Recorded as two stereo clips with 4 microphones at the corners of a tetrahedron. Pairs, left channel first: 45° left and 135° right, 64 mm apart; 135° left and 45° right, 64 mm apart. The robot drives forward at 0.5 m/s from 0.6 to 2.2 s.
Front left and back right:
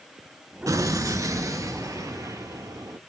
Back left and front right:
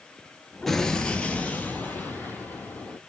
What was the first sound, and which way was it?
An explosion, 140° right.